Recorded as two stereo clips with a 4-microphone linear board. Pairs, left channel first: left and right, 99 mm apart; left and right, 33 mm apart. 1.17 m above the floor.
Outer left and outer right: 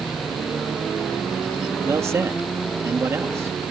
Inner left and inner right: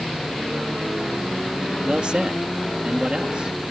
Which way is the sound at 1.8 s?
30° right (ahead or behind).